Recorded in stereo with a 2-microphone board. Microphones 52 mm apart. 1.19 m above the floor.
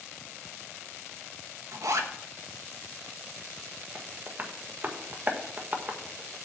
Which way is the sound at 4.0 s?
40° right (ahead or behind).